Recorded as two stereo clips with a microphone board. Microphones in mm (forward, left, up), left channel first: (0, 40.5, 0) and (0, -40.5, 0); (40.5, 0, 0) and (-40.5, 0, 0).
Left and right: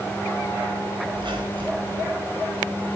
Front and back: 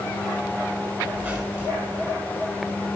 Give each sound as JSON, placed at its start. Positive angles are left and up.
{"t": 1.1, "sound": "a squeak", "azimuth_deg": -115, "distance_m": 1.7}